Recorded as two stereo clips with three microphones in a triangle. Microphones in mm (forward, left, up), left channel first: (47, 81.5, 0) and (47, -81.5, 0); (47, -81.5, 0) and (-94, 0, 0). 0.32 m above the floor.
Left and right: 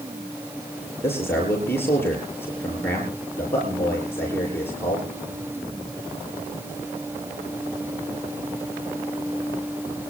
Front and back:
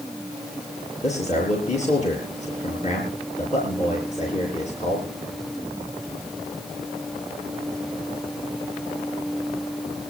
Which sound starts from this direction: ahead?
A man speaking, at 1.0 s.